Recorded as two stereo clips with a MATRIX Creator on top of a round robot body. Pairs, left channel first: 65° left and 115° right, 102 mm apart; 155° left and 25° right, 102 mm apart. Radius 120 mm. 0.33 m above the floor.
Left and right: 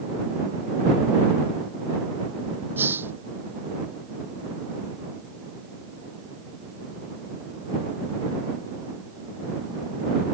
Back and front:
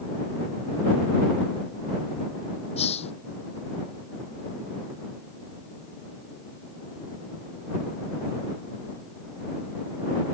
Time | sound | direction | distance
2.8 | a hiss | straight behind | ?